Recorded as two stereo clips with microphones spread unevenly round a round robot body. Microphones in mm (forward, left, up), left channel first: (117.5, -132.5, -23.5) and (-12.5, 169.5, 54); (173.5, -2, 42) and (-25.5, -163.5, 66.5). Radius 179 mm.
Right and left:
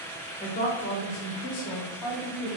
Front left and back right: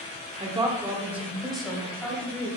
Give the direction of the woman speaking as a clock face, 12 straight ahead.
3 o'clock.